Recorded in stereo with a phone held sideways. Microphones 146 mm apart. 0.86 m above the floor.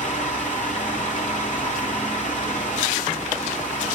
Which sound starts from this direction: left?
A fan, at 0.0 s.